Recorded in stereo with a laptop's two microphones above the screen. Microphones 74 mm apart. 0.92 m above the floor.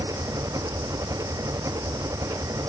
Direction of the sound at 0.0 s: 50° right (ahead or behind).